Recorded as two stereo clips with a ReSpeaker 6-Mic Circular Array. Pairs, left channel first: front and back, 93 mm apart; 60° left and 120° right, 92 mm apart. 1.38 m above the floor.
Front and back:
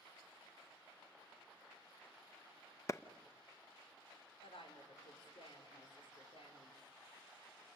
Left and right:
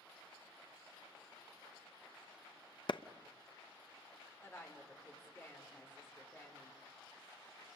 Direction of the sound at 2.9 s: 50° left.